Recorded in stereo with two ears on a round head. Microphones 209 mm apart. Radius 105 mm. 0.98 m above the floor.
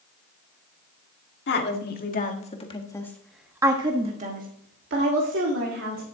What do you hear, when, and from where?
1.5 s a woman speaking: 50° left (ahead or behind), 2.0 m; by 6.0 s 65° right (ahead or behind), 2.5 m